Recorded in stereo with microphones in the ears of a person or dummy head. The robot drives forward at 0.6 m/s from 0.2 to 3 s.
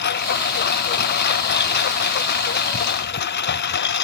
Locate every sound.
0.0 s a lawn mower: 55° left (ahead or behind)